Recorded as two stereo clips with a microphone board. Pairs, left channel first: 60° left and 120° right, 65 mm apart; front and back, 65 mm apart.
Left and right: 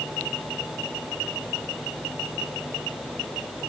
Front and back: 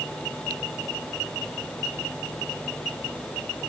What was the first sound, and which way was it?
Only background noise.